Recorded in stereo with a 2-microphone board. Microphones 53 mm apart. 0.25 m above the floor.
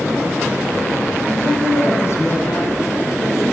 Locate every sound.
1.2 s a woman speaking: 55° left (ahead or behind), 1.7 m